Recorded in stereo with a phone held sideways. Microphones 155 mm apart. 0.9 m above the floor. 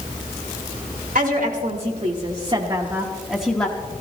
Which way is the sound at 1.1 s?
70° right (ahead or behind).